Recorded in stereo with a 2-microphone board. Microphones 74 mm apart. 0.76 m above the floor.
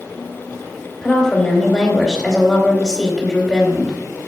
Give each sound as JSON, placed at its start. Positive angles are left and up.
{"t": 1.0, "sound": "a woman speaking", "side_deg": 5, "distance_m": 2.5}